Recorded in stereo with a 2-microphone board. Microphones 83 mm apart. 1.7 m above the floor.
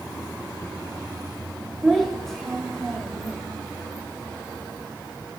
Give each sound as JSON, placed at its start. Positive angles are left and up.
{"t": 1.8, "sound": "a child speaking", "side_deg": 5, "distance_m": 1.4}